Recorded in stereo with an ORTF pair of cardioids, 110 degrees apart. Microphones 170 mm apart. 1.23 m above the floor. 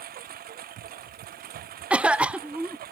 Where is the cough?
5° right.